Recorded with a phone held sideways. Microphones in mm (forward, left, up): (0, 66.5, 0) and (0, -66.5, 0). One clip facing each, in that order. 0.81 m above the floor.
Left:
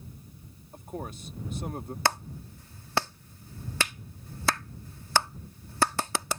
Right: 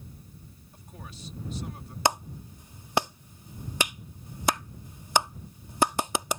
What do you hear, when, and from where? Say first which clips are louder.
0.7 s a man speaking: left 10 dB; 50° left (ahead or behind)
2.0 s a clap: right 3 dB; 15° right (ahead or behind)